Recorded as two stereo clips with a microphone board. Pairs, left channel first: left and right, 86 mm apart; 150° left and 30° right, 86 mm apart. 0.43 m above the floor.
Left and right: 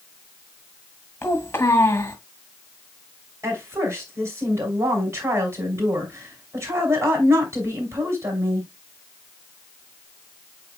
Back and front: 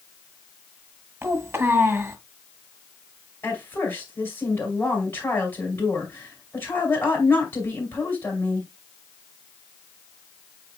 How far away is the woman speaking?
About 3.5 m.